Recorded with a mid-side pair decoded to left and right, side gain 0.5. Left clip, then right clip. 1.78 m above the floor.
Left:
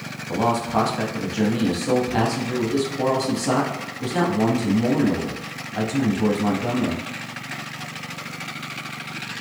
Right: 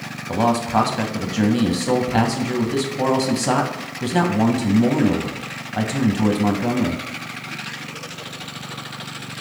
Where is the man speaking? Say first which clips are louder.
Right 2 dB; 30° right, 0.6 m.